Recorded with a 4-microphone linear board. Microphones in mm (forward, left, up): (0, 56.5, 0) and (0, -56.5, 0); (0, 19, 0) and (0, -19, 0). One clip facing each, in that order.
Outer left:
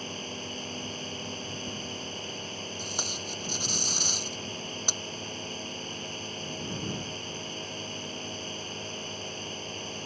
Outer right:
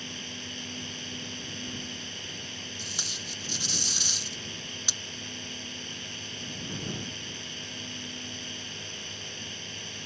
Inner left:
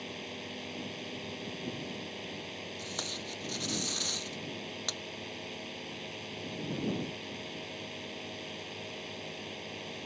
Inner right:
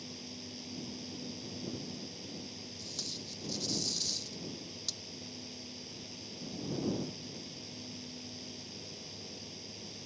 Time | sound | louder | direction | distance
0.0 | a drone | outer left 4 dB, inner left 6 dB | 40° left (ahead or behind) | ?
2.8 | tape being pulled | outer left 5 dB, inner left 5 dB | 45° left (ahead or behind) | ?